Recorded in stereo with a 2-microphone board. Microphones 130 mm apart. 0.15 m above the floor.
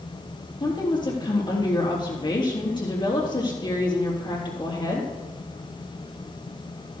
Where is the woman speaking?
35° left (ahead or behind), 3.5 m.